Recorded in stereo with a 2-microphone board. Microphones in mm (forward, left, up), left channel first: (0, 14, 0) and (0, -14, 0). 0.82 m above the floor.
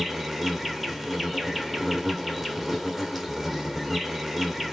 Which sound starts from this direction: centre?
An insect, at 0.0 s.